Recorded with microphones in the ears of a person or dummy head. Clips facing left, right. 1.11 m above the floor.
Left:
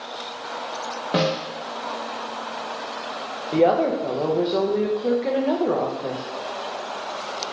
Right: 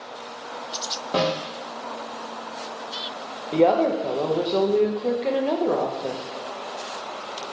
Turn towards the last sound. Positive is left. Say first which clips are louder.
# even
turn(degrees=5)  # may be behind; listen again after turning